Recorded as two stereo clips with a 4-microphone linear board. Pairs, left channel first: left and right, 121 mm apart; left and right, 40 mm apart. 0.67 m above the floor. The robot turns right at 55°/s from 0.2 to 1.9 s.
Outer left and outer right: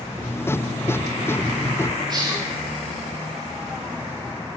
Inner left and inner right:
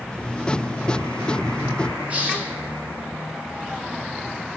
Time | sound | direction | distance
2.1 | a hiss | 35° right (ahead or behind) | 1.3 m